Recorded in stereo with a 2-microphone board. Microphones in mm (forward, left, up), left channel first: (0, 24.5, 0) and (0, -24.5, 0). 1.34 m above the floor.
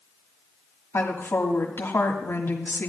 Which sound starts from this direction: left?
A woman speaking, at 0.9 s.